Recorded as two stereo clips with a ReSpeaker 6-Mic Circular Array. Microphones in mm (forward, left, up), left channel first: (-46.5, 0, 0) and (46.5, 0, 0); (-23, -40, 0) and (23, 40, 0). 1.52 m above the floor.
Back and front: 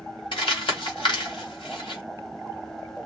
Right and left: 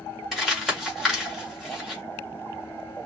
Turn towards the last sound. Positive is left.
turn(degrees=145)